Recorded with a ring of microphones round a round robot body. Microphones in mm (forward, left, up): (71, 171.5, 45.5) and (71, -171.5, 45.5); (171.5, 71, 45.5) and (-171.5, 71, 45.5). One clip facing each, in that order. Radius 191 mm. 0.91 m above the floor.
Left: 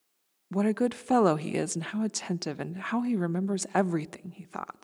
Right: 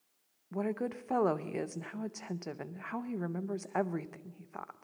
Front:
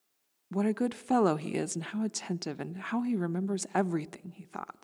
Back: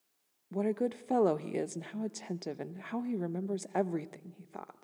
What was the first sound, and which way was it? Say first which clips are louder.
A woman speaking: left 8 dB, front 2 dB; 60° left.